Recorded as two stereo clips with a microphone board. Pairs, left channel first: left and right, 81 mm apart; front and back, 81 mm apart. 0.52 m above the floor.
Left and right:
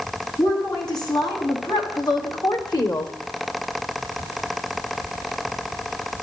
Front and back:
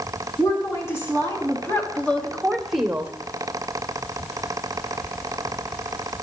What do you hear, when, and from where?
0.4 s a woman speaking: 55° left, 5 m; by 3.1 s 115° left, 1.7 m